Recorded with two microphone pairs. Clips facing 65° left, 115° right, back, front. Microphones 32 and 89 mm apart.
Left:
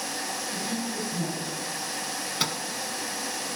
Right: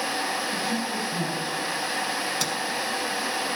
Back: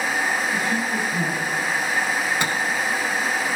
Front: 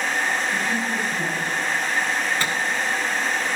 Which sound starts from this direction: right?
A woman speaking, at 0.5 s.